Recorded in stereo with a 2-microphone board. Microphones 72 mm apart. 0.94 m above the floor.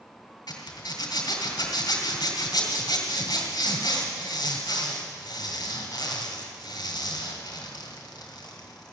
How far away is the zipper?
About 2.5 m.